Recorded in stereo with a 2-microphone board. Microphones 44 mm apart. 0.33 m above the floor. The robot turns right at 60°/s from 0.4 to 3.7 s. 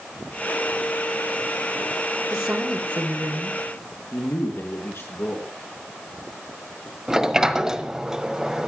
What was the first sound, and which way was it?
A woman speaking, 150° right.